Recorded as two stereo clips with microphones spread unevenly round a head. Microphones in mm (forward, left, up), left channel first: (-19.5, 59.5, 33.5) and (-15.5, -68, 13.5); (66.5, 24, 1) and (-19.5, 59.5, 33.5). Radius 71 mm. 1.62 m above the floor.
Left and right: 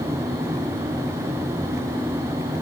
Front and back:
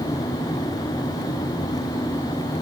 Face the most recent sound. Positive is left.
No sound to turn to.